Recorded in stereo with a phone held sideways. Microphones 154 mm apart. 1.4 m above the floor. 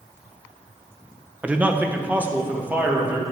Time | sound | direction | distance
1.4 | a man speaking | 5° right (ahead or behind) | 0.7 m